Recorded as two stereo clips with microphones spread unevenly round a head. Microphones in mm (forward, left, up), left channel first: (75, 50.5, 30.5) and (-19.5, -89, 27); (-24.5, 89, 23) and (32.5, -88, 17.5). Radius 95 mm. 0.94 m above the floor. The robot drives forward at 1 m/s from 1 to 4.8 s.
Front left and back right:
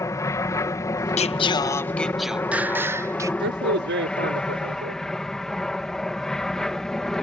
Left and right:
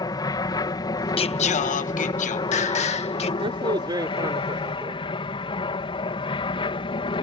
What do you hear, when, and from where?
0.0 s an aircraft: 95° left; by 7.2 s 140° left
1.2 s singing: 65° left; by 3.3 s 165° left
3.4 s a man speaking: 135° right; by 5.0 s 150° right